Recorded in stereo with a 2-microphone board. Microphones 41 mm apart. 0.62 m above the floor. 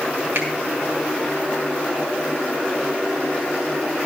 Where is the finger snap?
70° right (ahead or behind), 3 m.